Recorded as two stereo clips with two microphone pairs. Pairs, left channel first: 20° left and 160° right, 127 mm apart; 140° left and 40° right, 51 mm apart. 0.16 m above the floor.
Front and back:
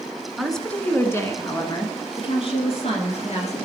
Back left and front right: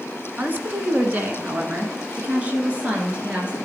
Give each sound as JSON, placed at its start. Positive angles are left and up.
{"t": 0.4, "sound": "a woman speaking", "azimuth_deg": -70, "distance_m": 1.2}